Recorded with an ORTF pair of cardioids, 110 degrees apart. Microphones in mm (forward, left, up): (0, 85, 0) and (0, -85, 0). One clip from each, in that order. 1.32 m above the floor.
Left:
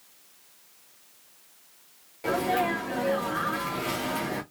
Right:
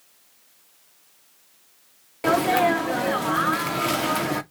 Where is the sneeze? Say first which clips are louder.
Right 7 dB; 50° right, 0.7 m.